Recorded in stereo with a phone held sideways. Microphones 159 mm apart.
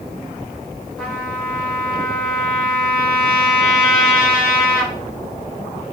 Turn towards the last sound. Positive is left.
turn(degrees=5)  # may be behind; listen again after turning